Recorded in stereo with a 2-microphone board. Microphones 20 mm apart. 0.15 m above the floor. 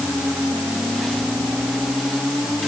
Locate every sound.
Only background noise.